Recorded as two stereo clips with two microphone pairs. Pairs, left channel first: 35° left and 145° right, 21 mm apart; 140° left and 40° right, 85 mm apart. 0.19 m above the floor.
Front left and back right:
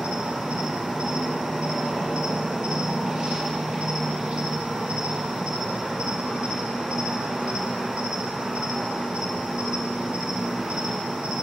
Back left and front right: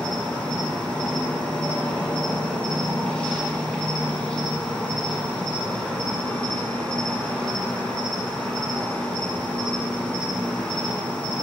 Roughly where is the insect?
Behind right.